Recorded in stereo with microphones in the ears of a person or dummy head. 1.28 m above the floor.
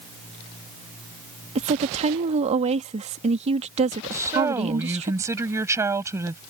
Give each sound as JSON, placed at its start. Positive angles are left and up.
{"t": 1.6, "sound": "a woman speaking", "side_deg": -30}
{"t": 4.1, "sound": "a woman speaking", "side_deg": -15}